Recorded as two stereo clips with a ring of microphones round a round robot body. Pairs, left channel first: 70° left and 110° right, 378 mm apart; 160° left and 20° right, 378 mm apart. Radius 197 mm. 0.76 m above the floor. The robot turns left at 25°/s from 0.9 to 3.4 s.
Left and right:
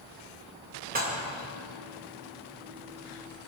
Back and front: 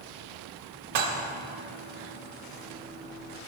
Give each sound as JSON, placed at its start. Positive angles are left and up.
{"t": 0.9, "sound": "dishes clattering", "azimuth_deg": -45, "distance_m": 1.7}